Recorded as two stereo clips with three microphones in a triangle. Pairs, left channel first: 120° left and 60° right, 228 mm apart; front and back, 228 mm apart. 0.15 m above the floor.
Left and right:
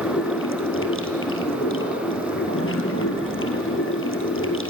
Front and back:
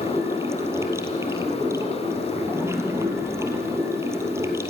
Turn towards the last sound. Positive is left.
turn(degrees=105)